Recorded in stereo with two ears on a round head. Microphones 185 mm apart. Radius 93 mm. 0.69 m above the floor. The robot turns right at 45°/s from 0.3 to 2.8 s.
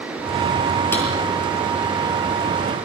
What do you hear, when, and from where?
0.9 s a drawer: 10° left (ahead or behind), 8.5 m; by 1.0 s 5° left (ahead or behind), 8.5 m